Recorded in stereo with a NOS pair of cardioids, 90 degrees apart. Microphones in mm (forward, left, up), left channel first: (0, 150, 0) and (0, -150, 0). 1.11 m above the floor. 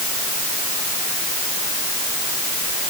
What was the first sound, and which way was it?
Only background noise.